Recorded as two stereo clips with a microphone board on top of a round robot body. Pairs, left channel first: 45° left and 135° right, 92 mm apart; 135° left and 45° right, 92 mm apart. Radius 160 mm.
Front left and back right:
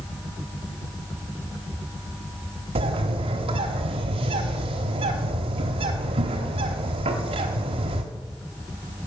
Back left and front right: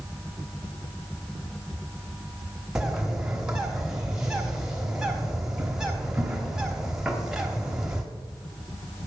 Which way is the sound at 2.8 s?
130° right.